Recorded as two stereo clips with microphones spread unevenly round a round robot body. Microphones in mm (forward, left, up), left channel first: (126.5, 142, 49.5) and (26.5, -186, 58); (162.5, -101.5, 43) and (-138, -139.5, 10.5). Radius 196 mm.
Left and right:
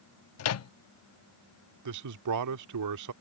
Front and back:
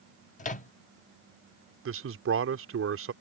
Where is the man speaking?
140° right.